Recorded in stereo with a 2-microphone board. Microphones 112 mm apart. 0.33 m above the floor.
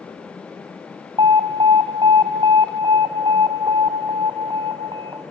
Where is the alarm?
45° right (ahead or behind), 2 m.